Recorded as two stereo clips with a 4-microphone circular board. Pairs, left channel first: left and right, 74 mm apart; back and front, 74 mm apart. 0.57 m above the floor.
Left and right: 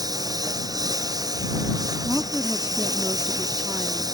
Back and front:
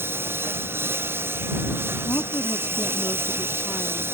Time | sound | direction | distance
0.0 | a lawn mower | 60° right | ?
2.0 | a woman speaking | 155° right | ?